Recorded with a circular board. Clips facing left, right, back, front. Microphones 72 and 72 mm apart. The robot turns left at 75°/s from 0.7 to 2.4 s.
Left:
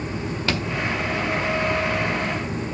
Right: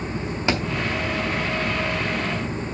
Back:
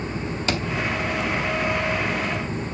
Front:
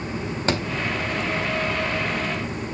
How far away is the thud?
About 1.6 m.